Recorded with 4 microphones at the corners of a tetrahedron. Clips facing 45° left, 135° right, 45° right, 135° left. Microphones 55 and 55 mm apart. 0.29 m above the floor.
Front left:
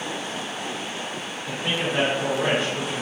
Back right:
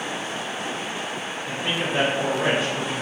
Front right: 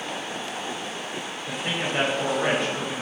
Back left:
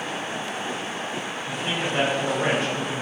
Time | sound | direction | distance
1.5 | a man speaking | 45° right | 1.3 m